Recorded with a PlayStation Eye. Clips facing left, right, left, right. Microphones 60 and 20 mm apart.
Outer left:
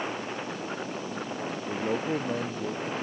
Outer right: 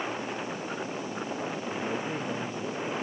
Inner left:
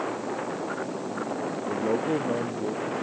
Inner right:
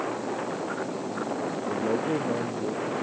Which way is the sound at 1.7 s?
35° left (ahead or behind).